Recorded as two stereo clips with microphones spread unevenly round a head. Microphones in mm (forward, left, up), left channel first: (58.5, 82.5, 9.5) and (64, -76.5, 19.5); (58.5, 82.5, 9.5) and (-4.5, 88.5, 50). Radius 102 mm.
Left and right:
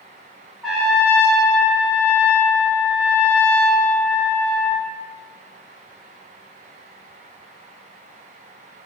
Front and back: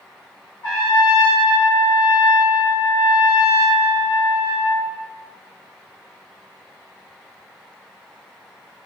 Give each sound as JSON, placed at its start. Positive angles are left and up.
{"t": 0.6, "sound": "a trumpet", "azimuth_deg": -5, "distance_m": 1.0}